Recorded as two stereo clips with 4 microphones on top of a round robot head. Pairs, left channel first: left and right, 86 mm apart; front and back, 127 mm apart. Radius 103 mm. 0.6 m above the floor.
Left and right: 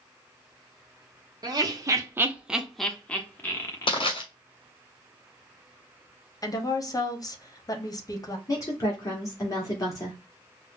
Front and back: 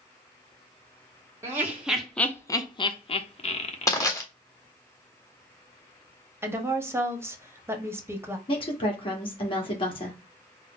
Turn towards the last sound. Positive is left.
turn(degrees=40)